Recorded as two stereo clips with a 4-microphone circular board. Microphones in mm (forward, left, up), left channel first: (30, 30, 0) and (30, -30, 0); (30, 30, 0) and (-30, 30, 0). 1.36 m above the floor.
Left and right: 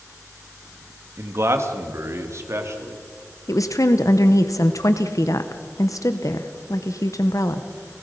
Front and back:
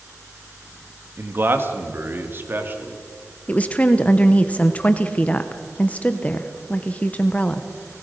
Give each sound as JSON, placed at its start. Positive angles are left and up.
{"t": 1.2, "sound": "a man speaking", "azimuth_deg": -130, "distance_m": 1.8}
{"t": 3.5, "sound": "a woman speaking", "azimuth_deg": 65, "distance_m": 0.9}